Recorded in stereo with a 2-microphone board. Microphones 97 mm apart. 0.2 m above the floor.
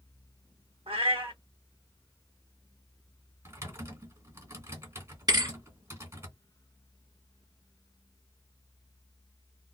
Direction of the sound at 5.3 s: 50° right (ahead or behind).